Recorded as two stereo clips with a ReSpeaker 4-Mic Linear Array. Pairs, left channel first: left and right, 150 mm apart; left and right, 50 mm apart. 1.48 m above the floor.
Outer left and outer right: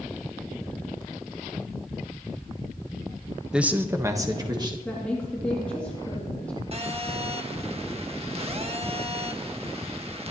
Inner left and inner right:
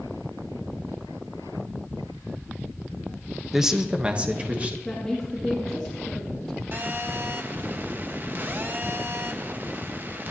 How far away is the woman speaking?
About 2.5 m.